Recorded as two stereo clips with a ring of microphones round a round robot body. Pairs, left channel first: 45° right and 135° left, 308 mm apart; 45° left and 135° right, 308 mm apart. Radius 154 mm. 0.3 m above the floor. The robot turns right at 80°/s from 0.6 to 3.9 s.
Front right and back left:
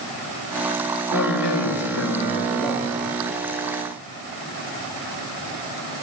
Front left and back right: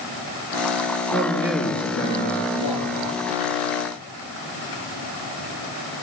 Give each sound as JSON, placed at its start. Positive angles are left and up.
{"t": 1.1, "sound": "a man speaking", "azimuth_deg": -80, "distance_m": 5.0}